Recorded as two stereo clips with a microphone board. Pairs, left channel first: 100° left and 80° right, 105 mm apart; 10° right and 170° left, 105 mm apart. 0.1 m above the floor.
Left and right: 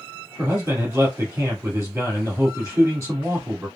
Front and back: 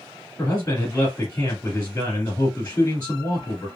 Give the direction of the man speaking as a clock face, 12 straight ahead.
2 o'clock.